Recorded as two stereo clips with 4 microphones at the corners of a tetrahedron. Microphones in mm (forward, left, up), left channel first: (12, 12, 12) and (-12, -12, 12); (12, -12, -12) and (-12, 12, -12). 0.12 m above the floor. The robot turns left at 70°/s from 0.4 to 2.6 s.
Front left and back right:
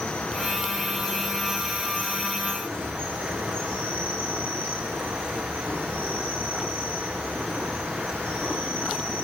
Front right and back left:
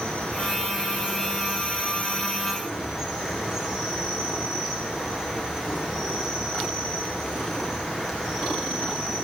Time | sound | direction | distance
0.0 | an insect | 15° left | 8.5 m